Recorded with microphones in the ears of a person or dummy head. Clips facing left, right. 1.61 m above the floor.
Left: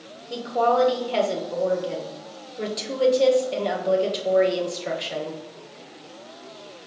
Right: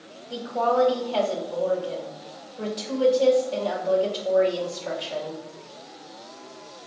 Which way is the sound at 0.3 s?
25° left (ahead or behind).